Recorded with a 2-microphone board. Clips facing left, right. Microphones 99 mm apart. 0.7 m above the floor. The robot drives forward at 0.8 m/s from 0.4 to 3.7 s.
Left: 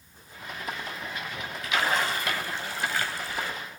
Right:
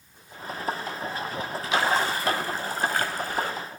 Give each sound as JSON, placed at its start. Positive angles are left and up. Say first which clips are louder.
{"t": 1.6, "sound": "a splash", "louder": "right 2 dB", "side_deg": -30, "distance_m": 3.5}